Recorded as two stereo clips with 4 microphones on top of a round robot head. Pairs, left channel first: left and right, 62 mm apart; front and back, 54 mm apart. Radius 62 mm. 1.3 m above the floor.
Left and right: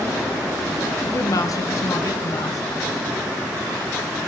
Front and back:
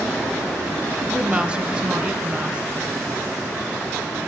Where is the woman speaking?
110° left, 0.9 m.